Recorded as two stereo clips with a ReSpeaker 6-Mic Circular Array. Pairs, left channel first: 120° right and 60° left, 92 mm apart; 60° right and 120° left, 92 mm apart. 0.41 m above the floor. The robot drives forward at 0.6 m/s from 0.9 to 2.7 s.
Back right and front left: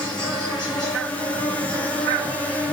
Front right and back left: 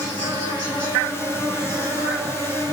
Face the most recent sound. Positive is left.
turn(degrees=170)